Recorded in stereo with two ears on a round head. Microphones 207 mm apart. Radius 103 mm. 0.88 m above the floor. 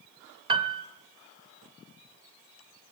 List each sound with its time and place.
0.5 s a piano: 25° right (ahead or behind), 0.7 m